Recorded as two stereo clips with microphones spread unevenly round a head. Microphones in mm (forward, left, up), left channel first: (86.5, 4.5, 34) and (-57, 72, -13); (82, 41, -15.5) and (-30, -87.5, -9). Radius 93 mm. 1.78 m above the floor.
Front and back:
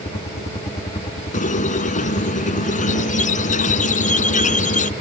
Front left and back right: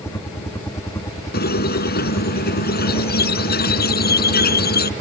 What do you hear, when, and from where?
0.0 s a helicopter: 5° left
1.3 s a squeak: 15° left